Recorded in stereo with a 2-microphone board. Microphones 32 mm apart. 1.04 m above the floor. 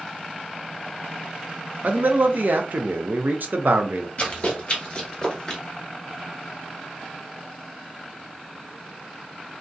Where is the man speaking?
60° right (ahead or behind), 0.6 m.